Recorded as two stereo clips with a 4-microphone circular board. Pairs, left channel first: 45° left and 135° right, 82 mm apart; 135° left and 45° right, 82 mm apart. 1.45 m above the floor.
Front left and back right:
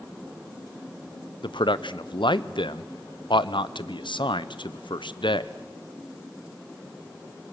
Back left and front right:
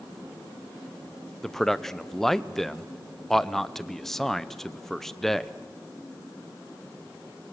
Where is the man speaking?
50° left, 0.7 m.